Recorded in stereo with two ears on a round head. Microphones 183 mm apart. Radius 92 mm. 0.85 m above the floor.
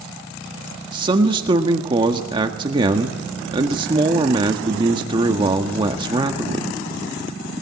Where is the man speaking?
20° right (ahead or behind), 1.4 m.